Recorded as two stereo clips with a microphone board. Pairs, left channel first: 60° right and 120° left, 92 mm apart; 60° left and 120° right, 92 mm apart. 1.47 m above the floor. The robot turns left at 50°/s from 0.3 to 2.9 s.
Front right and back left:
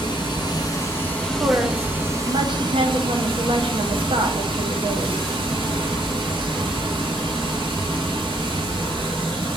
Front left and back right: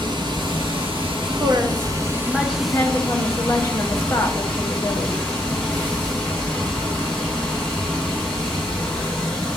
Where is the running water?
90° right, 1.1 m; by 9.6 s 140° left, 1.1 m.